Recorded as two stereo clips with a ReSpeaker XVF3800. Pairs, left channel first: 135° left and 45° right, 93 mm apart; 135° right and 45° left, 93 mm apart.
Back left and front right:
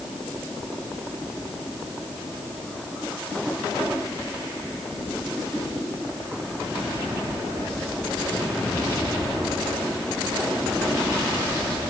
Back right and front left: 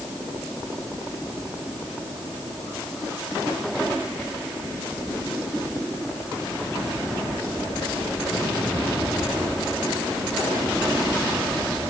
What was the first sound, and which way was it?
Only background noise.